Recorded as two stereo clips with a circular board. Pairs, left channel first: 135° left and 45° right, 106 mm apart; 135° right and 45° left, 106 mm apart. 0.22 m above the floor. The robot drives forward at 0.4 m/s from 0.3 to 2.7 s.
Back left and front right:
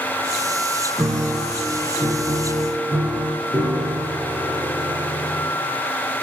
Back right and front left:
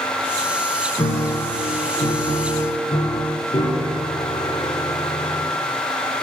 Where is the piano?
110° right, 1.2 m; by 5.5 s 135° right, 1.6 m.